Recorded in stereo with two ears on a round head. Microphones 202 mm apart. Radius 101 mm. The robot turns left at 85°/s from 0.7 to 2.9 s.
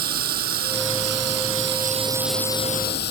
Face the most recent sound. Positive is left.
turn(degrees=130)